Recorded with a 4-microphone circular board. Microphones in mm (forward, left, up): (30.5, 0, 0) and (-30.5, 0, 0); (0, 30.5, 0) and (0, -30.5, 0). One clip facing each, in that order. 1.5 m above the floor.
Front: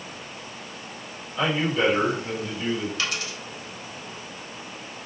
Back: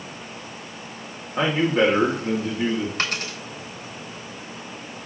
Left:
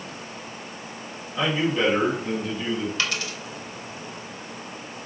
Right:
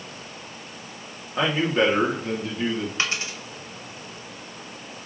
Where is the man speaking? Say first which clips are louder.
Back 4 dB, right 2 dB; 140° right, 3.5 m.